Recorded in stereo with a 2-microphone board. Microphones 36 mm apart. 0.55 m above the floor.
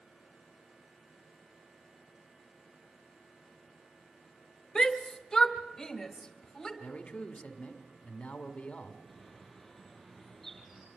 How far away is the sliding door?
I don't hear a sliding door.